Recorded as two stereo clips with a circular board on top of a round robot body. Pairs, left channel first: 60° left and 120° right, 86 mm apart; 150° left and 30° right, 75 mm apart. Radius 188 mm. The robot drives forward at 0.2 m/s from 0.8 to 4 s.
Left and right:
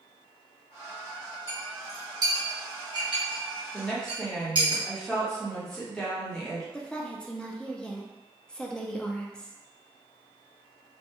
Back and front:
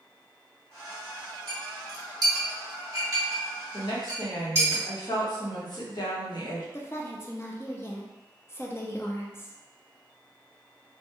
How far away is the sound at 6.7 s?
About 0.7 m.